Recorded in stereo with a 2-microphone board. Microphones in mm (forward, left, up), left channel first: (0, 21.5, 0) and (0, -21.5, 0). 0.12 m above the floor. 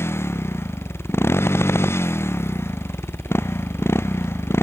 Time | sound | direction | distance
0.0 | a motorcycle | 80° left | ?